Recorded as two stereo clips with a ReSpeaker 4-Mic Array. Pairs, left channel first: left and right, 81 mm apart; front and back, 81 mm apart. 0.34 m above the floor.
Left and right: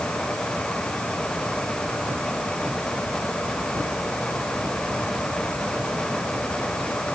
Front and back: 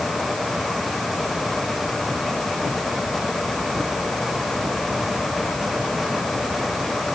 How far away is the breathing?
I don't hear breathing.